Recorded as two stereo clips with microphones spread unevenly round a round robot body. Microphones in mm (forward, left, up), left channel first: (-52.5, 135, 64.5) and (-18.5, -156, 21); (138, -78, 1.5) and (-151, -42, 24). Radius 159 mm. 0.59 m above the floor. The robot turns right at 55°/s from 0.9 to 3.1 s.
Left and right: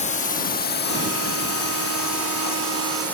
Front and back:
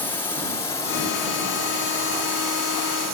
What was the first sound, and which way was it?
A drone, 55° left.